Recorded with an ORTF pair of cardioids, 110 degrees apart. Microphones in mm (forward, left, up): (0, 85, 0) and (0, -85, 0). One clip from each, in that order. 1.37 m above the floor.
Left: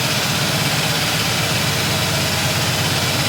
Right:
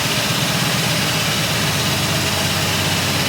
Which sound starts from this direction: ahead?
A machine running, at 0.0 s.